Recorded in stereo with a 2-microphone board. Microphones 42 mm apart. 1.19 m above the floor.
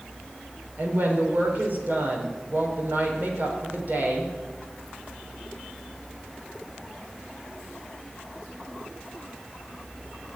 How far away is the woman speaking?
About 4 m.